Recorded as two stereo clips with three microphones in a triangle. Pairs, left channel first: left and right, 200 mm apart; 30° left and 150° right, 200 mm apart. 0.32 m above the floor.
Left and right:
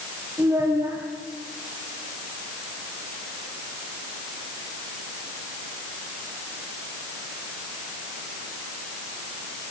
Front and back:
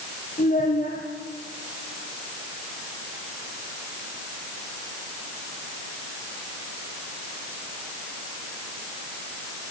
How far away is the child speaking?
About 4.5 m.